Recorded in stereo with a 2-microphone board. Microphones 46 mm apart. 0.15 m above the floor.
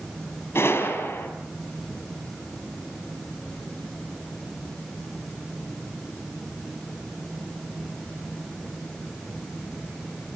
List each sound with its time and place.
0.6 s a gunshot: 70° left (ahead or behind), 4.5 m